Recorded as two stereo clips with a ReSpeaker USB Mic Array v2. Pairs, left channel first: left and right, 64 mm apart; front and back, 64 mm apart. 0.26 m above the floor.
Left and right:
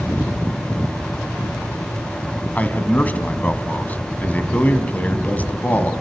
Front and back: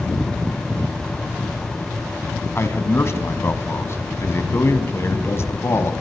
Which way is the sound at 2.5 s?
35° left.